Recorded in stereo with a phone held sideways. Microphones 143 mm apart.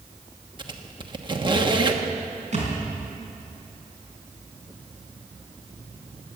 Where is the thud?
50° right (ahead or behind), 4 m.